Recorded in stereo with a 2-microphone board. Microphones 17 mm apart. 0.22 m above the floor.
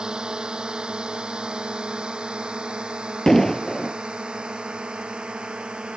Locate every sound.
0.0 s a drone: 60° right (ahead or behind); by 6.0 s 85° right
3.3 s an explosion: 25° left (ahead or behind)